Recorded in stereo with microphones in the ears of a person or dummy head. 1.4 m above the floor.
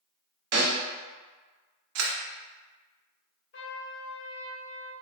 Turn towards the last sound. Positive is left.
turn(degrees=55)  # may be behind; listen again after turning